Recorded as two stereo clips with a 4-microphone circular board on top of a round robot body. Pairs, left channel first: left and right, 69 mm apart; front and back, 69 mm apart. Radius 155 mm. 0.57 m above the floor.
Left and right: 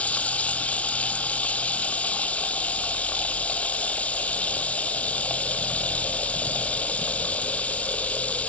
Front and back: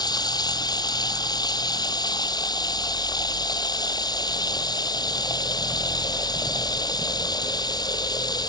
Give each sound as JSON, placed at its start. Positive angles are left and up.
{"t": 0.0, "sound": "running water", "azimuth_deg": 20}